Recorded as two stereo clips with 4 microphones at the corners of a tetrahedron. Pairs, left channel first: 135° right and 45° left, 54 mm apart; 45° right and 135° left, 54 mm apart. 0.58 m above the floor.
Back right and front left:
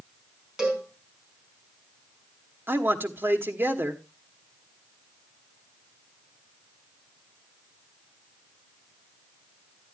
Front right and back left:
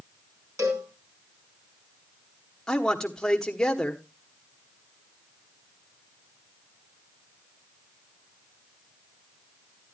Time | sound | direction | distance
0.6 | a cowbell | 125° left | 4.5 m
2.7 | a man speaking | 30° left | 1.3 m